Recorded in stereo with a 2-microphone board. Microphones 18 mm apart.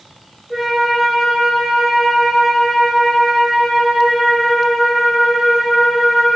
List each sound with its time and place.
0.5 s a flute: 10° right (ahead or behind), 1.2 m